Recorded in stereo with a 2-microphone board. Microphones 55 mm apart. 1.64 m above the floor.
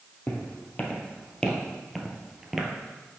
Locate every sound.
0.3 s footsteps: 35° left (ahead or behind), 2 m; by 2.7 s 10° right (ahead or behind), 1.6 m